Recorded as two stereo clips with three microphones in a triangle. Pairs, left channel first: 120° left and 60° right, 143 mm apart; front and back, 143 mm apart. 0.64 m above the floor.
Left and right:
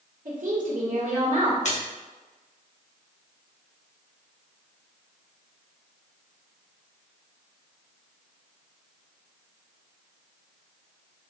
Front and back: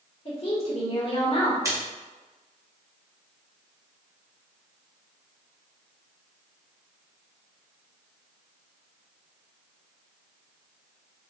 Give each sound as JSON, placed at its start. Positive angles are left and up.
{"t": 0.2, "sound": "a woman speaking", "azimuth_deg": -40, "distance_m": 1.6}
{"t": 1.6, "sound": "a splash", "azimuth_deg": 115, "distance_m": 1.1}